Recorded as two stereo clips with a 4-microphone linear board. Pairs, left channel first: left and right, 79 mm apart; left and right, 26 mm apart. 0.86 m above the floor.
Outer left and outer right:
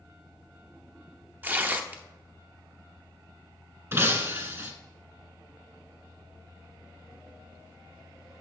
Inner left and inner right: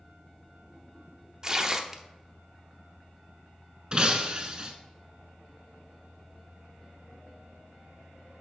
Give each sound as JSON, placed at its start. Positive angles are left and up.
{"t": 1.4, "sound": "tearing paper", "side_deg": -25, "distance_m": 0.6}
{"t": 3.9, "sound": "breaking glass", "side_deg": -35, "distance_m": 0.9}